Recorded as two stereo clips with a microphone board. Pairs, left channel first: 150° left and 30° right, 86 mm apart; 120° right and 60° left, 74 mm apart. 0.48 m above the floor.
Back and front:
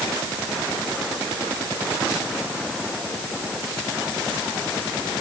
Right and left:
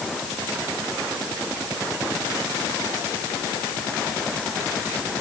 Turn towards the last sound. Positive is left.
No sound to turn to.